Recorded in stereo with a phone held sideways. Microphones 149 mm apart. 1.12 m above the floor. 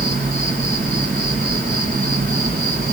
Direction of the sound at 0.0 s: 65° right (ahead or behind).